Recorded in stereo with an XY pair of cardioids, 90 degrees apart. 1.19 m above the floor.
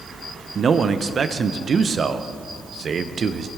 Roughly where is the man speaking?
Ahead right.